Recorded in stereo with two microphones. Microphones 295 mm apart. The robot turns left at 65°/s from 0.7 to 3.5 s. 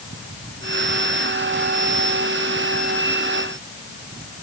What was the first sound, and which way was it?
Only background noise.